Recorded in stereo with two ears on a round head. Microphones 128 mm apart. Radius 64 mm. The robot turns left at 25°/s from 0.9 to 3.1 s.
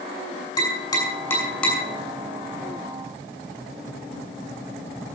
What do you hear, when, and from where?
0.6 s tapping: 30° left (ahead or behind), 6 m; by 1.8 s 5° left (ahead or behind), 6 m